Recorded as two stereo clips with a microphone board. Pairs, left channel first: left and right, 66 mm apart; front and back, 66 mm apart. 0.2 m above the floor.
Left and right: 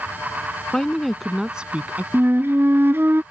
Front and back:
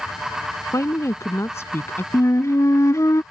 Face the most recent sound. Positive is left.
turn(degrees=-35)